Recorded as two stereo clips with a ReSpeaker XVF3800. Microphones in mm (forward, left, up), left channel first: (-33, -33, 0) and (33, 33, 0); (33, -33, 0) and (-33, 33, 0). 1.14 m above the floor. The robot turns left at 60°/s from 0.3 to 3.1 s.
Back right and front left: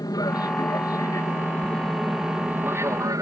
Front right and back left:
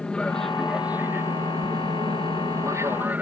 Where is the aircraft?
120° right; by 3.2 s 75° left.